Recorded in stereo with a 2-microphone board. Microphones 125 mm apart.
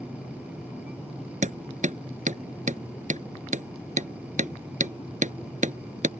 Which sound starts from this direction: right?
Hammering, at 1.4 s.